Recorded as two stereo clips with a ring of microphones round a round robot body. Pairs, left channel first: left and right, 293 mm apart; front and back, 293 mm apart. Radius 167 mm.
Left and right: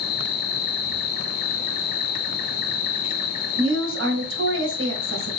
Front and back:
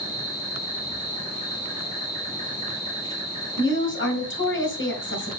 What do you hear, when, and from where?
0.0 s an insect: 80° left, 1.2 m
3.6 s a woman speaking: 45° right, 2.5 m